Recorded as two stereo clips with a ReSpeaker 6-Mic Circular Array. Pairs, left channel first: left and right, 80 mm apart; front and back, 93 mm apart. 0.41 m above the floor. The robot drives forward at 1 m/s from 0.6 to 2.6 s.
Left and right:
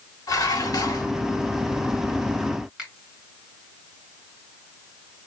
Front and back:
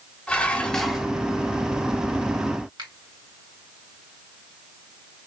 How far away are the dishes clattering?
About 1.0 m.